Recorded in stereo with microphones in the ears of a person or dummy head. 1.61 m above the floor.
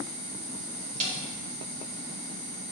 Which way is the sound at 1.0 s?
35° right (ahead or behind).